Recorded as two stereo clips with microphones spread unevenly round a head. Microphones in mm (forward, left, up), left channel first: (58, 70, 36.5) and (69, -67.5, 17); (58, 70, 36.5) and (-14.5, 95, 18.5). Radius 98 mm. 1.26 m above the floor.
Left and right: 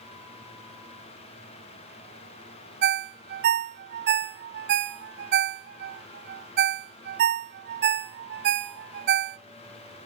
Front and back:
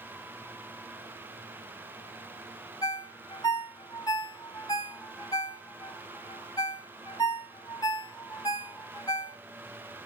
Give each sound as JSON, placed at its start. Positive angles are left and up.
{"t": 2.8, "sound": "a ringtone", "azimuth_deg": -80, "distance_m": 0.7}